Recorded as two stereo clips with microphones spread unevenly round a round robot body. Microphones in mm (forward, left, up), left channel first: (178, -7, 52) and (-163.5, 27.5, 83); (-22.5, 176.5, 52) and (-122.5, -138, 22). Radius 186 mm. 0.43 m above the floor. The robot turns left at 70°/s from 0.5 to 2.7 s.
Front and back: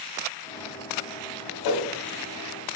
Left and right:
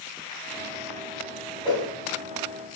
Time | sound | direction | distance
1.6 | a whoosh | 5° right | 1.0 m